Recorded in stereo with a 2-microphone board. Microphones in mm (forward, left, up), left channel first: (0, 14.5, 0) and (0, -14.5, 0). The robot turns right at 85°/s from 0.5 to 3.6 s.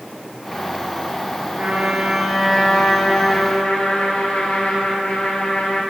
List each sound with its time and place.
1.6 s a trumpet: 80° right, 1.8 m; by 5.8 s 90° left, 1.8 m